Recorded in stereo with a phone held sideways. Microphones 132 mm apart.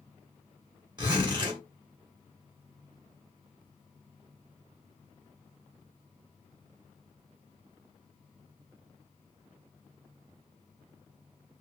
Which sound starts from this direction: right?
A zipper, at 1.0 s.